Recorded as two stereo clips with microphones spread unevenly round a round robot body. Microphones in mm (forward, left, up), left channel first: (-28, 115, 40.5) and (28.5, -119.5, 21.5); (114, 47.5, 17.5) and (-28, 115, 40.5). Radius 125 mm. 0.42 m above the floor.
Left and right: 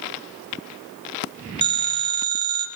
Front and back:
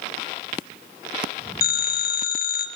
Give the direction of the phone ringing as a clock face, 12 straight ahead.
12 o'clock.